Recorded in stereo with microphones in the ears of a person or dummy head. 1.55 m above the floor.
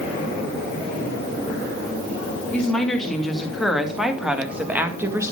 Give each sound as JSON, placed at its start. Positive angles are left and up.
{"t": 2.5, "sound": "a woman speaking", "side_deg": 5, "distance_m": 3.0}